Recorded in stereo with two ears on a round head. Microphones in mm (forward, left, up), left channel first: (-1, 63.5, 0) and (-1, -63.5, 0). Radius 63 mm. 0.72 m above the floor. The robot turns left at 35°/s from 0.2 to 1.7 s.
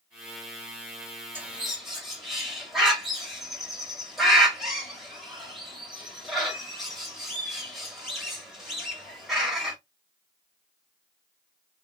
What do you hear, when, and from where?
1.4 s a bird: 15° right (ahead or behind), 1.6 m; by 9.8 s centre (ahead or behind), 1.6 m